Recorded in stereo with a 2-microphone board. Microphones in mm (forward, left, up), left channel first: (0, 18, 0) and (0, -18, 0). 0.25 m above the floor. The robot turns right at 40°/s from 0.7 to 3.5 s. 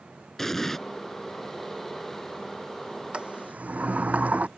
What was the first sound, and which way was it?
An explosion, 10° left (ahead or behind).